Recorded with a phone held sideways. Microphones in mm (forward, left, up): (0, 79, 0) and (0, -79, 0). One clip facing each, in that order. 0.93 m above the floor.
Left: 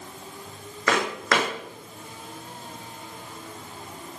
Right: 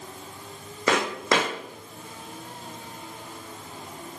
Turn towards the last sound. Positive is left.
turn(degrees=-25)  # may be behind; listen again after turning